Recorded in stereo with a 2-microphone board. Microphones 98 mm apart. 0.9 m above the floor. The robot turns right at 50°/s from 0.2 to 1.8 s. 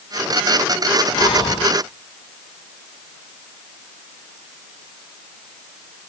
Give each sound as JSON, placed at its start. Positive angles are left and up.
{"t": 1.1, "sound": "breathing", "azimuth_deg": 75, "distance_m": 0.8}